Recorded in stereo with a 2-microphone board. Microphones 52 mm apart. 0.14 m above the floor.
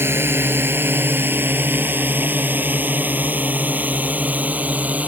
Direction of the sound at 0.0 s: 50° right (ahead or behind).